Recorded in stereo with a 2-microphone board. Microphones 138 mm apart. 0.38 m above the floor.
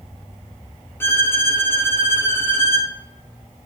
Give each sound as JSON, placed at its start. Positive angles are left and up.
{"t": 1.0, "sound": "a violin", "side_deg": 15, "distance_m": 1.8}